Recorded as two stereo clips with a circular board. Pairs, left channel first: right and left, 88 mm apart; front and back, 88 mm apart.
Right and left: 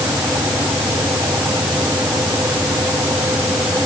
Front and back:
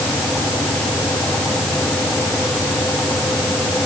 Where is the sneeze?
I don't hear a sneeze.